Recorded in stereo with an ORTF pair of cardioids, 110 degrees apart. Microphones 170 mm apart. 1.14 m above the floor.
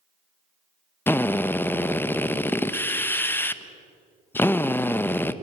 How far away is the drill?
About 1.0 m.